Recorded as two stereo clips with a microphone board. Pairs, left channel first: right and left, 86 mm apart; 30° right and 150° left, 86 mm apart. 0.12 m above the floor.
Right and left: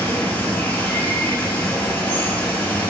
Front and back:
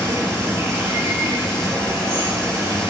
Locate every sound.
0.0 s running water: 160° right, 1.5 m